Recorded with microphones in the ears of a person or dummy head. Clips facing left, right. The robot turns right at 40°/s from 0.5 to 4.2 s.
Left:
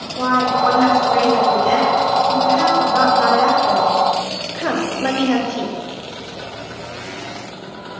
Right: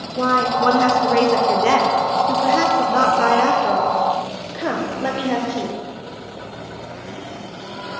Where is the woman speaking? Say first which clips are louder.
Left 1 dB; 150° right, 1.2 m; by 5.8 s straight ahead, 1.2 m.